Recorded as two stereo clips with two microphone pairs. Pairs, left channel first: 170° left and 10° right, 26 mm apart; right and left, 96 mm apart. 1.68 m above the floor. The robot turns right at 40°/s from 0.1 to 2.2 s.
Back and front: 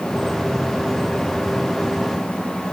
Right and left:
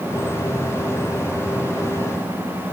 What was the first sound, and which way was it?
Only background noise.